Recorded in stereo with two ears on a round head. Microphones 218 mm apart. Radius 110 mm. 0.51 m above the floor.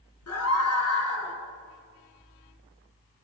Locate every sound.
0.3 s a scream: 70° left (ahead or behind), 8 m; by 1.4 s 65° left (ahead or behind), 7.5 m